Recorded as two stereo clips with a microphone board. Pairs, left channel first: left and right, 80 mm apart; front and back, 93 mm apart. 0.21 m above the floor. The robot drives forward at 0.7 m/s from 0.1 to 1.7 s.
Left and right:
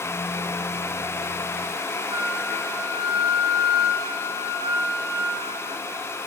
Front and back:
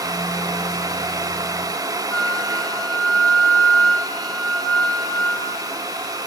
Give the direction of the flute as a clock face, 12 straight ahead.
2 o'clock.